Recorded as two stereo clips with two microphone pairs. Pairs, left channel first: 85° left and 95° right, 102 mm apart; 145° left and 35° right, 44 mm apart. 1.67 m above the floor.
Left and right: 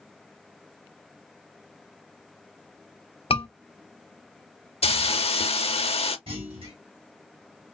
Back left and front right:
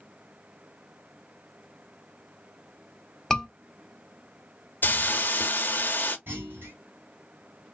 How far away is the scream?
About 1.0 m.